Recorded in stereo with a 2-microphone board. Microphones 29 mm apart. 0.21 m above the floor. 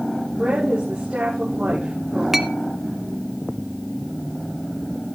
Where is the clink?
10° right (ahead or behind), 0.8 m.